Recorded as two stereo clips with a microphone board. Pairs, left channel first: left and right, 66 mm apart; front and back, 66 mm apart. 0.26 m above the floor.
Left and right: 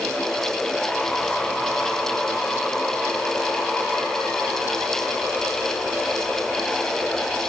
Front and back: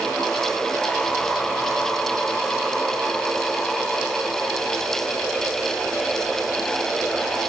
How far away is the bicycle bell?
I don't hear a bicycle bell.